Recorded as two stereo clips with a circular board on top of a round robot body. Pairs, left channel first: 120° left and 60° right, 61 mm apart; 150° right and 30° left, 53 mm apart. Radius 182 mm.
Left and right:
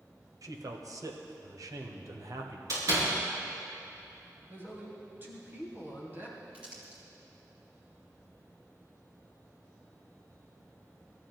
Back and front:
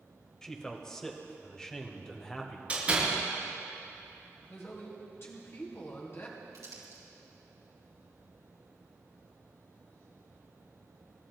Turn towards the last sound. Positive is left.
turn(degrees=10)